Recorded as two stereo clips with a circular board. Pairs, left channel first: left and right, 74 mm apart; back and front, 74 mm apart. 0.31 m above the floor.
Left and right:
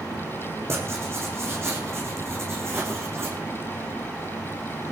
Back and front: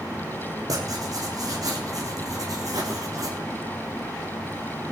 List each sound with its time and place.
0.7 s writing: 35° right, 3.5 m